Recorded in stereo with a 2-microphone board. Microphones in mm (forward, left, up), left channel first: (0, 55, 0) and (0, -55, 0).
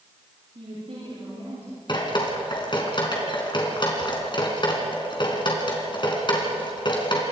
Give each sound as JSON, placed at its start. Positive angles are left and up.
{"t": 0.6, "sound": "a woman speaking", "side_deg": -65, "distance_m": 9.5}
{"t": 1.9, "sound": "dripping", "side_deg": 45, "distance_m": 4.0}